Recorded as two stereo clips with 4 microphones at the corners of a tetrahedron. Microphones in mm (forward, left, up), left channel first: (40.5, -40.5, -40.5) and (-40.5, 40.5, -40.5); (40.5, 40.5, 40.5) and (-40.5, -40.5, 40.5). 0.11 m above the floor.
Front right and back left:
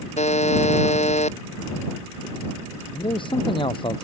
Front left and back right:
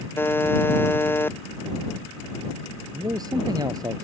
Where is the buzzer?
25° right.